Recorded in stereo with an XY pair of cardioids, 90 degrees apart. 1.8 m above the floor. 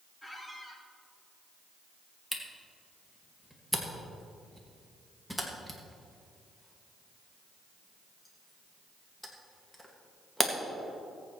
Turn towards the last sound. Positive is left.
turn(degrees=0)